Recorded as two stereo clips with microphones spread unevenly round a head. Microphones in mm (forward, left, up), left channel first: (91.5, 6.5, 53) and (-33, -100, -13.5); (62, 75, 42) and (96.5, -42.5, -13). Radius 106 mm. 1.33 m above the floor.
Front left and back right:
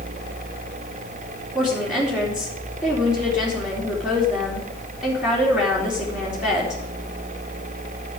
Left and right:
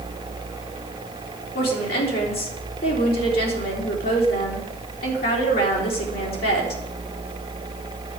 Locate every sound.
1.6 s a woman speaking: 135° left, 3 m